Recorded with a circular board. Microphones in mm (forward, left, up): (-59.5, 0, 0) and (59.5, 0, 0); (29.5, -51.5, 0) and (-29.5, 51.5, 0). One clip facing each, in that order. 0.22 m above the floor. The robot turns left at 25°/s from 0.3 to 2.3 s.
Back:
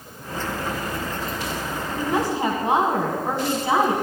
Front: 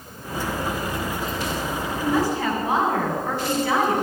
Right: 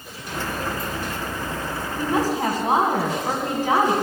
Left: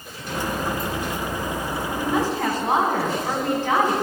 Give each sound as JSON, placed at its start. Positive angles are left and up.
{"t": 2.0, "sound": "a woman speaking", "azimuth_deg": -120, "distance_m": 1.9}